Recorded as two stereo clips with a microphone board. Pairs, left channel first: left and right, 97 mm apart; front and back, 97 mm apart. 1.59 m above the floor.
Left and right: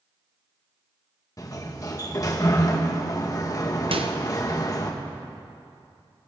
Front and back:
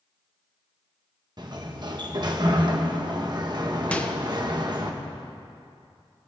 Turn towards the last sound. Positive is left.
turn(degrees=-75)